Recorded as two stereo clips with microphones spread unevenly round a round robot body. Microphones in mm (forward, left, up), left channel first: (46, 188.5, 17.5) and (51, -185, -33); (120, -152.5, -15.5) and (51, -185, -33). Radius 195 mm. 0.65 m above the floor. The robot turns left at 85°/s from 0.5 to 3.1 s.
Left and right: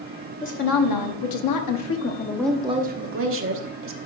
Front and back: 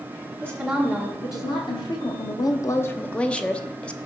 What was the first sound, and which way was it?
A woman speaking, 160° left.